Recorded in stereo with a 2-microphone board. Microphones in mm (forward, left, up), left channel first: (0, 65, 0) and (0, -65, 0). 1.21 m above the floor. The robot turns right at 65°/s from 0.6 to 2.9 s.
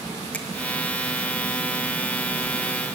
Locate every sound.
0.3 s a finger snap: 10° left (ahead or behind), 1.7 m